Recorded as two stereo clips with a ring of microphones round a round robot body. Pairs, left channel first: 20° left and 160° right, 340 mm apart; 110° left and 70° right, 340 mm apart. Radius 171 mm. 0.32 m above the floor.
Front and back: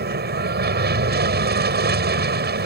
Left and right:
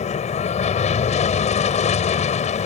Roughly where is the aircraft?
Behind.